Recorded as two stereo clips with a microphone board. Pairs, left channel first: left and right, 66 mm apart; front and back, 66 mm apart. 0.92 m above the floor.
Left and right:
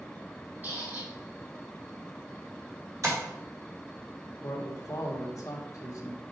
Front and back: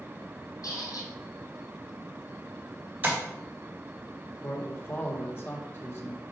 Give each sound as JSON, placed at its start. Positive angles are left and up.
{"t": 0.6, "sound": "a squeak", "azimuth_deg": -30, "distance_m": 3.0}
{"t": 3.0, "sound": "tapping", "azimuth_deg": -120, "distance_m": 2.5}
{"t": 4.4, "sound": "a man speaking", "azimuth_deg": 50, "distance_m": 1.3}